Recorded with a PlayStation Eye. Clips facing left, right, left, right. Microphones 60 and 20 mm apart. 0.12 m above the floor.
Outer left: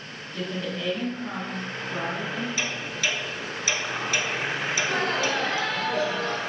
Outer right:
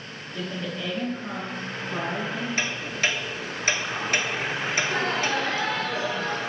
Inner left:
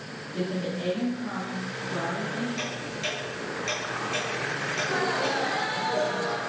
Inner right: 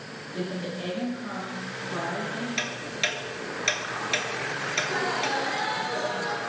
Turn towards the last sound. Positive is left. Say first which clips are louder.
# even, even
turn(degrees=-5)  # may be behind; listen again after turning